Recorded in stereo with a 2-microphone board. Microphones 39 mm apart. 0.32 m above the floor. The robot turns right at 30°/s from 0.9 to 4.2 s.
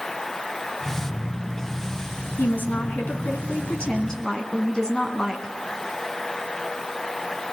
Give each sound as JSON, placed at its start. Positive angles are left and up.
{"t": 2.4, "sound": "a woman speaking", "azimuth_deg": 105, "distance_m": 3.0}